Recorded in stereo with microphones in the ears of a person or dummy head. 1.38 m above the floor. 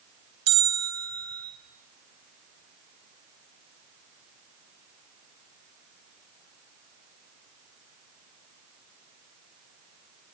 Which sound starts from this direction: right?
A bell, at 0.5 s.